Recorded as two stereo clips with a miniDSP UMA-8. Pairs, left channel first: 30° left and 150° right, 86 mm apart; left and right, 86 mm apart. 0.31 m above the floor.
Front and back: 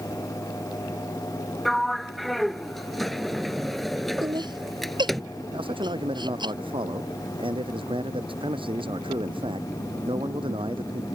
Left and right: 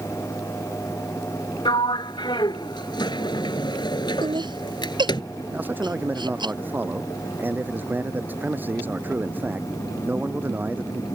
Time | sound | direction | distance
1.6 | a sliding door | 120° left | ?
4.2 | laughter | 120° right | ?
5.5 | a man speaking | 160° right | ?